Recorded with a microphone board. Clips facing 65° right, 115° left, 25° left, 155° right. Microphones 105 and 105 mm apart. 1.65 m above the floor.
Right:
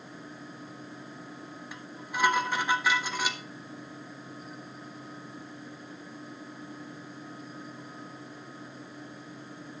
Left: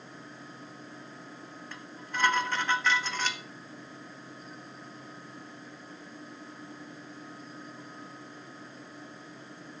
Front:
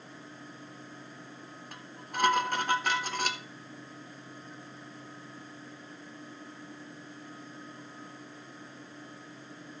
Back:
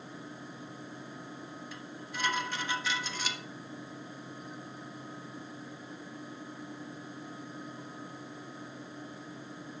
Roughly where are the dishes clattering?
Ahead.